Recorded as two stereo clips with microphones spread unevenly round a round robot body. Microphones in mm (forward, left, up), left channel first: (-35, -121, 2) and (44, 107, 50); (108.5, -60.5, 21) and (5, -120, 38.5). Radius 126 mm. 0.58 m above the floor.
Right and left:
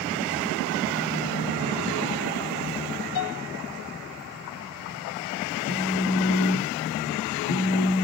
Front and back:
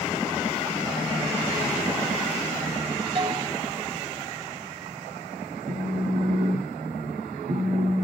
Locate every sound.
3.1 s a piano: 110° right, 0.8 m
5.7 s a phone buzzing: 115° right, 1.5 m